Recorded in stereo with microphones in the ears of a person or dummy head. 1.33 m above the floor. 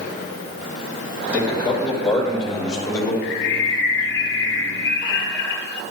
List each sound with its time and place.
1.3 s a man speaking: 10° right (ahead or behind), 3 m; by 3.1 s 5° left (ahead or behind), 3 m
3.2 s a bird: 60° left (ahead or behind), 0.7 m